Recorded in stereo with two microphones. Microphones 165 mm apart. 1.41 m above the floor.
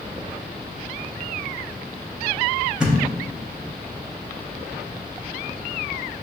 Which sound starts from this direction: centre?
A thud, at 2.8 s.